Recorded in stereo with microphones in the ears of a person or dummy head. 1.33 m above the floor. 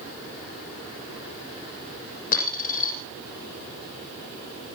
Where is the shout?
No shout in this recording.